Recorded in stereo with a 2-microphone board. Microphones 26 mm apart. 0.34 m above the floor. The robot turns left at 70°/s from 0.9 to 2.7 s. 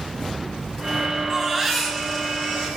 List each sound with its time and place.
1.3 s a baby crying: 160° right, 3.5 m; by 2.7 s 105° left, 3.5 m